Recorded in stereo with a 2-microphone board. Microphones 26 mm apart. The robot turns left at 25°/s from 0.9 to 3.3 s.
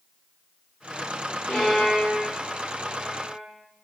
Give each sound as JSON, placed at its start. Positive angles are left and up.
{"t": 1.5, "sound": "a violin", "side_deg": 70, "distance_m": 1.7}